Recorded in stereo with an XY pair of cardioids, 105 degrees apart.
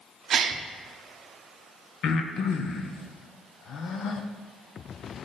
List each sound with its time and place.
0.3 s a gasp: 55° right, 0.6 m
2.0 s breathing: 65° left, 0.7 m